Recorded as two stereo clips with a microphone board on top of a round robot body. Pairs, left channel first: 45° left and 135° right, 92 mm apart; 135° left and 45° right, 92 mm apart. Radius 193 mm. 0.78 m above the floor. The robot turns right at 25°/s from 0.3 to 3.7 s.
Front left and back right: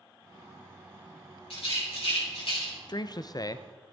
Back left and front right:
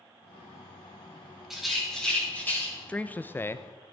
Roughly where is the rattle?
Ahead left.